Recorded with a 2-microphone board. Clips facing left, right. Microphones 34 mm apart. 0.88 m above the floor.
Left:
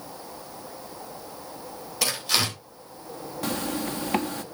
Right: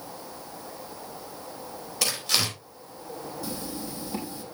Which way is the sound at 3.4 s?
60° left (ahead or behind).